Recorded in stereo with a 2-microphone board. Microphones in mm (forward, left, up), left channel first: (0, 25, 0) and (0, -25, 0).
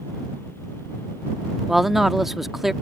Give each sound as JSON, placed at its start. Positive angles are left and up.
{"t": 1.7, "sound": "a man speaking", "side_deg": -5}